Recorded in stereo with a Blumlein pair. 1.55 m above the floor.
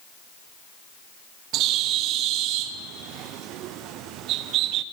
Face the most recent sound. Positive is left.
turn(degrees=-40)